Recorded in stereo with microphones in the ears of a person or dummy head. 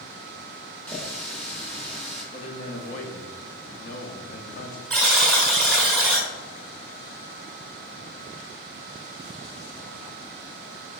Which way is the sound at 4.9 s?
5° left (ahead or behind).